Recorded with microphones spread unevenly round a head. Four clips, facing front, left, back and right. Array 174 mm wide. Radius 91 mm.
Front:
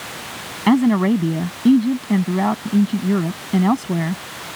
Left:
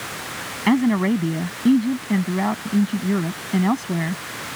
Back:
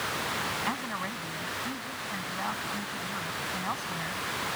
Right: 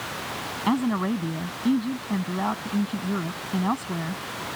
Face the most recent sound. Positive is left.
turn(degrees=20)